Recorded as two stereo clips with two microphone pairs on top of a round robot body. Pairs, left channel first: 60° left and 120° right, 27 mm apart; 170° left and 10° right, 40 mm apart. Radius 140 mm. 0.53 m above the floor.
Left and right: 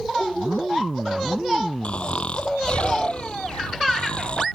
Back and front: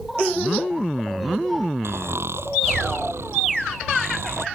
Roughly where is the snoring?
Ahead.